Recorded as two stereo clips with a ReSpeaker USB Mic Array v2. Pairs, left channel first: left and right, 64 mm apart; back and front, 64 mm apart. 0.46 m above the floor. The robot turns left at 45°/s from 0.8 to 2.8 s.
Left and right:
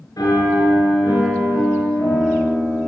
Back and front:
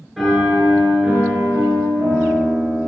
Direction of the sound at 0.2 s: 85° left.